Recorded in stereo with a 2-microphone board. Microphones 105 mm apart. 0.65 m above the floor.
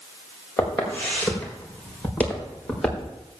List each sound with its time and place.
0.6 s footsteps: 20° left (ahead or behind), 6 m; by 3.1 s 5° left (ahead or behind), 6.5 m